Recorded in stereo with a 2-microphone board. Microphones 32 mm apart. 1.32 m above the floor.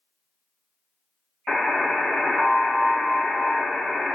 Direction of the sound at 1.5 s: 5° left (ahead or behind).